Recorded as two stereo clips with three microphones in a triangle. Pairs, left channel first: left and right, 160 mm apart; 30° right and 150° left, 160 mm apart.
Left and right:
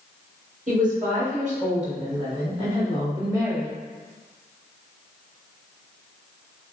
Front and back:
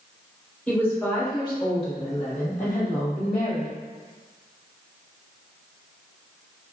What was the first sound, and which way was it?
A woman speaking, 110° right.